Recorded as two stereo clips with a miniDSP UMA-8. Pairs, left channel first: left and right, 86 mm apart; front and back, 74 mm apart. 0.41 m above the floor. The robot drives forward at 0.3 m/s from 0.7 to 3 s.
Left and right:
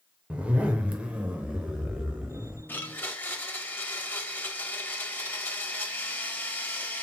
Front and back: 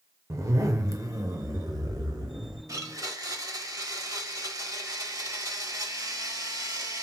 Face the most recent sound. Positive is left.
turn(degrees=150)